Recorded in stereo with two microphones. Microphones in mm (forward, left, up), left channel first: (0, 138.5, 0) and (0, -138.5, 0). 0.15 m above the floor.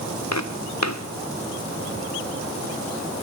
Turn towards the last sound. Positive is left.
turn(degrees=70)  # may be behind; listen again after turning